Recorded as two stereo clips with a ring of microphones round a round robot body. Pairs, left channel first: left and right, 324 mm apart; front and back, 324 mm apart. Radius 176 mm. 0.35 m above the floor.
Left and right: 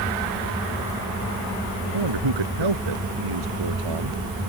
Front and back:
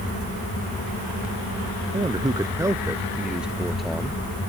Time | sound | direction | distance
1.9 | a man speaking | 105° right | ?